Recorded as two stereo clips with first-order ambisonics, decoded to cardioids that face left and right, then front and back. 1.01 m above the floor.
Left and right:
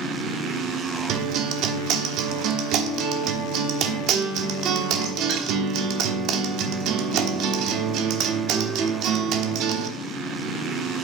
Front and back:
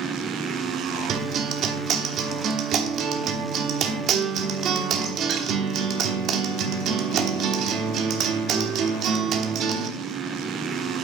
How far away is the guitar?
About 1.1 m.